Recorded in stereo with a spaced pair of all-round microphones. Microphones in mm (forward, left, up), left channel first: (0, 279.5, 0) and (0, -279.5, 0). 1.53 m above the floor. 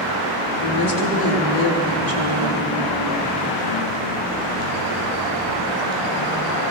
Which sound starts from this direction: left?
A woman speaking, at 0.6 s.